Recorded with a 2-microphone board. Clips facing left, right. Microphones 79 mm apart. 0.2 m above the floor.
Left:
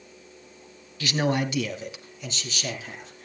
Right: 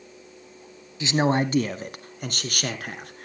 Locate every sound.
1.0 s a man speaking: 20° right (ahead or behind), 1.0 m; by 3.2 s 65° right (ahead or behind), 2.5 m